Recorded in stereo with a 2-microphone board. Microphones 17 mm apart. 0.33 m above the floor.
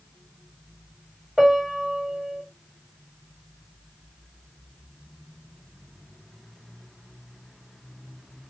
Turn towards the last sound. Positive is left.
turn(degrees=-45)  # may be behind; listen again after turning